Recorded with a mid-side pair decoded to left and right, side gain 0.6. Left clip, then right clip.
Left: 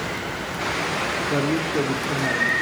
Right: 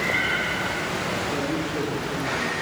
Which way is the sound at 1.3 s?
35° left.